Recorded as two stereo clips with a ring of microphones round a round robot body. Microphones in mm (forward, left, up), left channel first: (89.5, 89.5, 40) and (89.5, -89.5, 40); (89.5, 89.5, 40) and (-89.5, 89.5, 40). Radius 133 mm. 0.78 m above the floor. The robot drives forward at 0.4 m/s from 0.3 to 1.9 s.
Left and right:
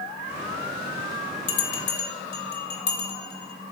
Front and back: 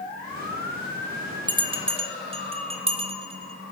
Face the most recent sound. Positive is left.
turn(degrees=120)